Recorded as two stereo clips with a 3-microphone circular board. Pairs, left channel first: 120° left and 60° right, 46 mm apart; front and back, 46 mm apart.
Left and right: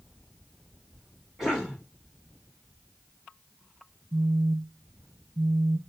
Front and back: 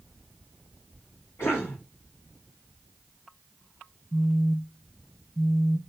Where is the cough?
20° left, 5.5 m.